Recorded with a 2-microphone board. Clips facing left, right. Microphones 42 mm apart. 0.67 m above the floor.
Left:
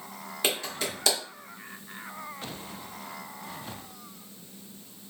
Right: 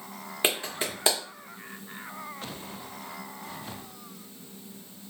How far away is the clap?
About 1.3 m.